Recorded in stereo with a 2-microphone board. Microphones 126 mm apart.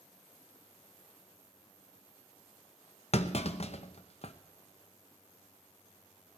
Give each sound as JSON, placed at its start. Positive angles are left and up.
{"t": 3.1, "sound": "a clunk", "side_deg": 55, "distance_m": 0.7}